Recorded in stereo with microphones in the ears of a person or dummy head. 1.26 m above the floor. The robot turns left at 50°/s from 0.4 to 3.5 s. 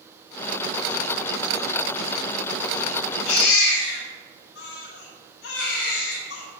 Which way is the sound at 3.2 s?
85° left.